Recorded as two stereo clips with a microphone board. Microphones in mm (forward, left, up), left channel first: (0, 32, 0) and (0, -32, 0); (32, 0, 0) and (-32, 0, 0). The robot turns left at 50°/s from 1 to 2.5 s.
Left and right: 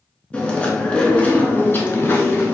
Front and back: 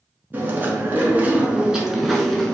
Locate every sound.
0.3 s chewing: 150° left, 0.6 m; by 2.5 s 75° left, 0.6 m